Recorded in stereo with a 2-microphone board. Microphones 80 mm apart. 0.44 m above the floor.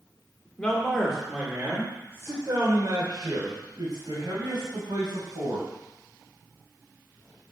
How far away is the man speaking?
About 1.3 m.